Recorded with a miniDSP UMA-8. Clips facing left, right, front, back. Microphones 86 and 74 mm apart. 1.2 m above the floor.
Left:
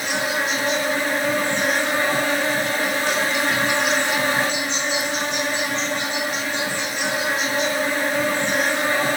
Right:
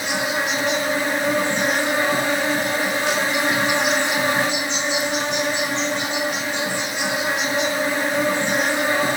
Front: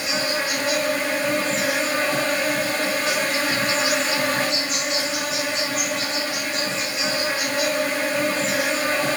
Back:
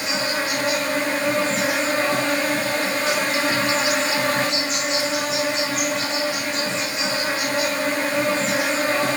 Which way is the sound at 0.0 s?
140° right.